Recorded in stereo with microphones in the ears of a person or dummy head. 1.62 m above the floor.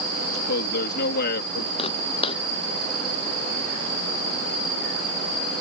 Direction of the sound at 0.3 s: 60° left (ahead or behind).